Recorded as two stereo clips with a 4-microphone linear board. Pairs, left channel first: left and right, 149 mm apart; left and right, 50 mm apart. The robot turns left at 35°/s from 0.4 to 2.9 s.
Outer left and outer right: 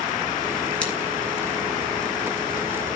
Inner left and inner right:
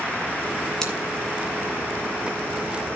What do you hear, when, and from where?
0.8 s scissors: 10° left (ahead or behind), 3.5 m; by 0.9 s 5° left (ahead or behind), 3.5 m